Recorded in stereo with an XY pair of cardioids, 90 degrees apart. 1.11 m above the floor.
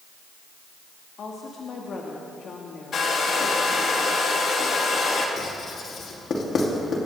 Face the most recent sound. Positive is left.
turn(degrees=55)